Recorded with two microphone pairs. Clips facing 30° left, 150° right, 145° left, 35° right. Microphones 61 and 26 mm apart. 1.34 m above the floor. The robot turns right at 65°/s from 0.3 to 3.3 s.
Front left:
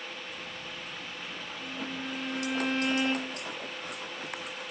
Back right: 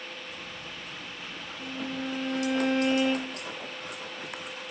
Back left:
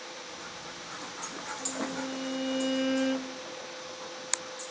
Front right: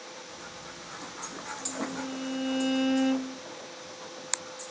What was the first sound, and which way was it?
A violin, 165° right.